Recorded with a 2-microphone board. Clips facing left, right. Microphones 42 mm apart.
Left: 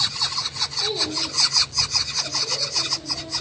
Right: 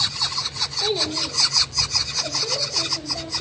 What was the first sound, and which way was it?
A child speaking, 30° right (ahead or behind).